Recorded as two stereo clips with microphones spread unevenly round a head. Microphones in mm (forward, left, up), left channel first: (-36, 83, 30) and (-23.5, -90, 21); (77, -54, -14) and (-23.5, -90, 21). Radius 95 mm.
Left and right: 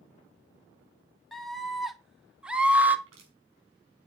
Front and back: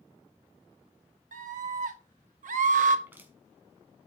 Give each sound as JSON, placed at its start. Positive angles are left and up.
{"t": 1.3, "sound": "a scream", "azimuth_deg": 180, "distance_m": 3.0}
{"t": 3.1, "sound": "crushing", "azimuth_deg": -90, "distance_m": 5.0}